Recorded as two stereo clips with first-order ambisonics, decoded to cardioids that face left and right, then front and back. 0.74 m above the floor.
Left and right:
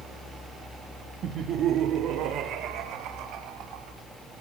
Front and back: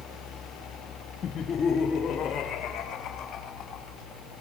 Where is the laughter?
50° right, 0.8 m; by 4.0 s 65° right, 3.5 m.